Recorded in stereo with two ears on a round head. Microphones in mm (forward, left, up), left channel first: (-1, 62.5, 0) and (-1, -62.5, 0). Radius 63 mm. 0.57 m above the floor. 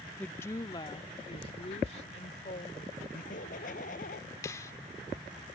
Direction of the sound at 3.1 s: 65° left (ahead or behind).